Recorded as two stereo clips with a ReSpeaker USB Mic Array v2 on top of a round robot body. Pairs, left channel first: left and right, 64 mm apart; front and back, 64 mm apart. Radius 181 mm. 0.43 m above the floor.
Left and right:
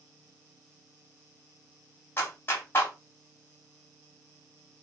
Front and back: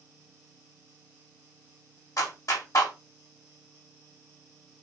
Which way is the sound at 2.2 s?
35° left.